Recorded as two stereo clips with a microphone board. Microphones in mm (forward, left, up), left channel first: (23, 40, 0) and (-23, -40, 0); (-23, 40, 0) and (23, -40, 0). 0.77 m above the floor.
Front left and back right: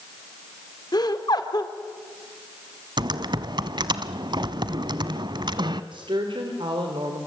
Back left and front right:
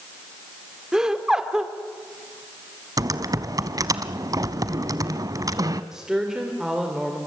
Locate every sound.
0.9 s laughter: 25° left, 2.5 m
3.0 s typing on a keyboard: 100° right, 1.1 m
5.9 s a woman speaking: 145° right, 3 m